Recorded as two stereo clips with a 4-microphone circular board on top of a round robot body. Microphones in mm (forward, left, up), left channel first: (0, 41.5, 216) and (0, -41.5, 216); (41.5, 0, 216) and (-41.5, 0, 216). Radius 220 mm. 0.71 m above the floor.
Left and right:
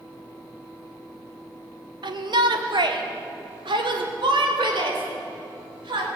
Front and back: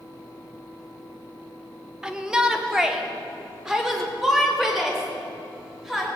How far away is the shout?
About 2 m.